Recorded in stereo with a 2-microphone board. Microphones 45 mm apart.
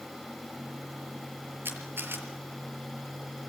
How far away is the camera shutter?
About 6 m.